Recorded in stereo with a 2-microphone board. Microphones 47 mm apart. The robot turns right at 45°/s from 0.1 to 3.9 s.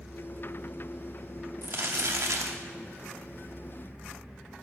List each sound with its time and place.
1.6 s crumpling: 130° right, 0.8 m; by 2.6 s 85° right, 0.8 m